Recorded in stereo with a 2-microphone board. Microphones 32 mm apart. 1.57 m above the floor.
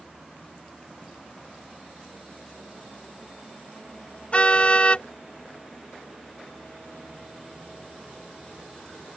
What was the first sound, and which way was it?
A car horn, 35° left (ahead or behind).